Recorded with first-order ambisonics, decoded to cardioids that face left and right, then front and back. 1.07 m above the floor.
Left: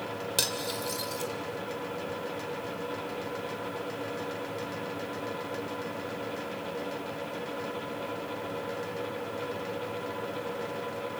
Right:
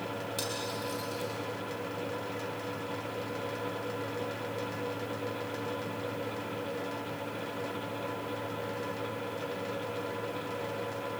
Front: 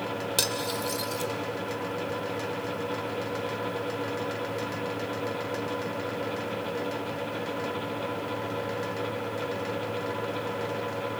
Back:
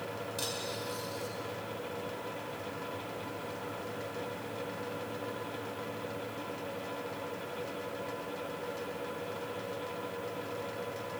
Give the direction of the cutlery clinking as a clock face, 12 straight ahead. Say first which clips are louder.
Left 7 dB, front 9 dB; 11 o'clock.